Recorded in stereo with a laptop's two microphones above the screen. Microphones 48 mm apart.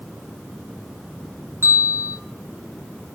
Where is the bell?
65° right (ahead or behind), 0.6 m.